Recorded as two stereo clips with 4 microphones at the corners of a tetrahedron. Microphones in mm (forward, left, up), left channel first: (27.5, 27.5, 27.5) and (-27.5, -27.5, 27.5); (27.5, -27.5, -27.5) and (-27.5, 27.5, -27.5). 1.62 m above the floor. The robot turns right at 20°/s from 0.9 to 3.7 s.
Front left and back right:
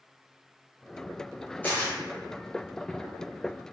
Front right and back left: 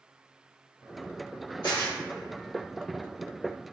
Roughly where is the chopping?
I don't hear chopping.